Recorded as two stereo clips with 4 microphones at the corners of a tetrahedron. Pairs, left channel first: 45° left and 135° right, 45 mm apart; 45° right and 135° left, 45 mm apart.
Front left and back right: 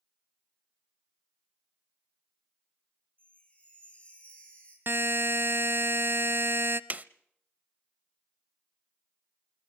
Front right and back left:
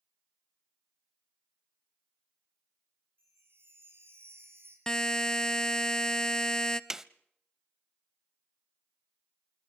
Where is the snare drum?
150° right, 0.5 m.